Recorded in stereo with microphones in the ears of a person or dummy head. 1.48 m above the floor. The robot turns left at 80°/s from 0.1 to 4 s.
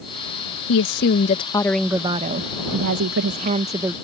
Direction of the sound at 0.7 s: 85° left.